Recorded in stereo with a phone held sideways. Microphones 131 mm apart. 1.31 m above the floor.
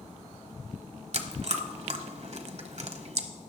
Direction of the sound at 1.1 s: 55° right (ahead or behind).